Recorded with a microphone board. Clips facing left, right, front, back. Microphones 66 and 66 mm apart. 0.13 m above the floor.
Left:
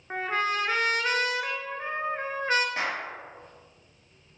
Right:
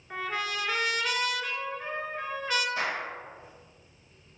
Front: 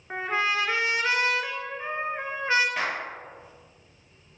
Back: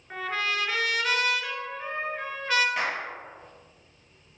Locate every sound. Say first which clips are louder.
0.1 s a trumpet: left 5 dB, front 3 dB; 55° left, 0.6 m
2.8 s a clap: left 1 dB, even; 90° left, 2.5 m